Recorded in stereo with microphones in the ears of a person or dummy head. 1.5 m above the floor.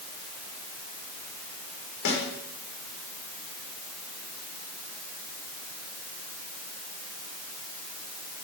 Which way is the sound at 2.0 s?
60° left (ahead or behind).